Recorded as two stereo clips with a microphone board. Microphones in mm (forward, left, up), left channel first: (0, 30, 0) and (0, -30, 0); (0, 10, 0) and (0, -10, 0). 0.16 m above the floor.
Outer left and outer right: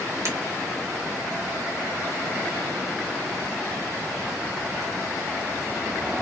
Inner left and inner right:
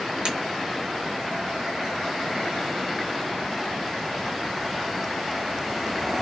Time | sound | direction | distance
0.2 | breaking glass | 55° right (ahead or behind) | 1.7 m